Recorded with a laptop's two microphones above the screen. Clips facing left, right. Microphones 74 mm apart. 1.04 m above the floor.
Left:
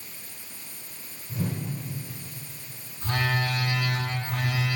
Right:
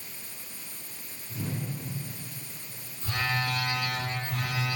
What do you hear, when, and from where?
1.3 s a whoosh: 50° left (ahead or behind), 3 m
3.0 s a phone buzzing: 65° left (ahead or behind), 1.7 m